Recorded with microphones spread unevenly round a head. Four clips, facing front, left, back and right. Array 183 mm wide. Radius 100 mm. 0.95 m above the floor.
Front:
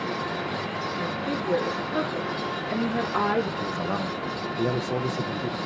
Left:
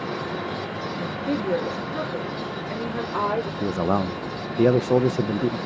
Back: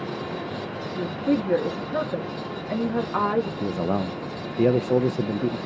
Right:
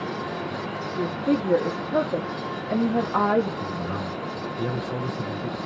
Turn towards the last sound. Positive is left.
turn(degrees=110)